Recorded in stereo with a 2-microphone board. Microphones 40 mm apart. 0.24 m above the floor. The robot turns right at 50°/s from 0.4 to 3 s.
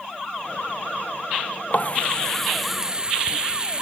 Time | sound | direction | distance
1.7 | a running tap | 135° left | ?